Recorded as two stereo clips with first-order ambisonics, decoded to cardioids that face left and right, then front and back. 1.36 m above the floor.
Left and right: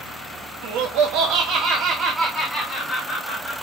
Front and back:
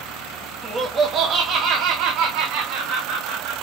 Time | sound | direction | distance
0.6 | laughter | 105° right | 0.9 m